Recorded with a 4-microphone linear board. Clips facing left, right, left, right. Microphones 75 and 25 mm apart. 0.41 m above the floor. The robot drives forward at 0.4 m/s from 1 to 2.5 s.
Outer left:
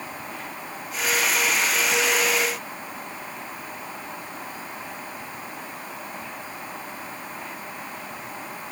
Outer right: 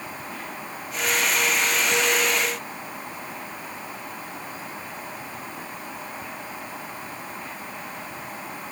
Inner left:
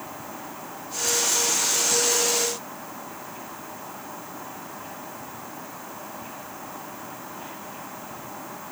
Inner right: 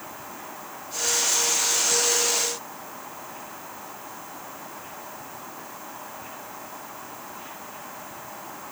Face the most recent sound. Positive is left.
No sound to turn to.